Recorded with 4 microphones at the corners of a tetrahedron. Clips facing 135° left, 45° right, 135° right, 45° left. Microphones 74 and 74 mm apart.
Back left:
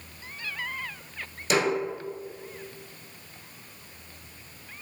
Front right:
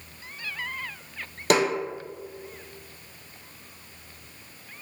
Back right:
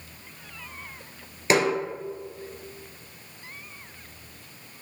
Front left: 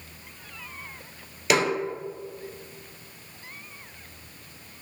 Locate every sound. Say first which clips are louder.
1.5 s a snare drum: front right 3 dB, back right 1 dB; 75° right, 1.9 m